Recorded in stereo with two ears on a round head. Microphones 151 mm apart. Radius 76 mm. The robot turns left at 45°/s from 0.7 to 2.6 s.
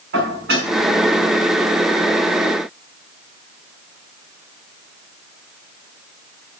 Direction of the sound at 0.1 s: 70° right (ahead or behind).